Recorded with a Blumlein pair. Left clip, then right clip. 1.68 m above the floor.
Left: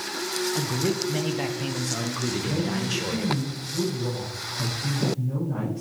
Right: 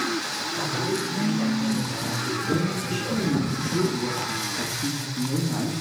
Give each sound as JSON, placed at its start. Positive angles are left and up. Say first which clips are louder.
{"t": 0.6, "sound": "a man speaking", "louder": "even", "azimuth_deg": 60, "distance_m": 1.3}
{"t": 2.4, "sound": "a woman speaking", "louder": "right 2 dB", "azimuth_deg": -35, "distance_m": 3.5}